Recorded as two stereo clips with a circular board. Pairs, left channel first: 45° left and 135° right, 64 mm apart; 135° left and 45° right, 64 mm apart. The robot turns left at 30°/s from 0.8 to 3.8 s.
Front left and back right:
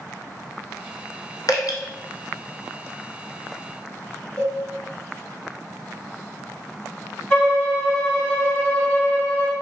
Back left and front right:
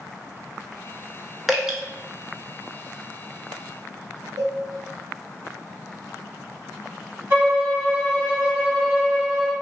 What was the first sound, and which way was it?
Dripping, 45° left.